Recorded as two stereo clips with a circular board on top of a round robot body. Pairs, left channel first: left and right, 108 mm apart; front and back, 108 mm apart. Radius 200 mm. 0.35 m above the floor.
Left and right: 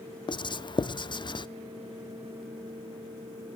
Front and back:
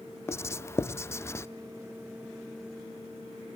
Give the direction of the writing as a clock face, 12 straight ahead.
10 o'clock.